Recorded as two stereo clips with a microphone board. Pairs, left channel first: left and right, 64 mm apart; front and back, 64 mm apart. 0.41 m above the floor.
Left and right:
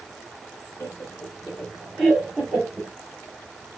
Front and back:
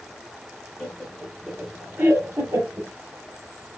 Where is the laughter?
80° left, 1.3 m; by 2.9 s 160° right, 1.4 m.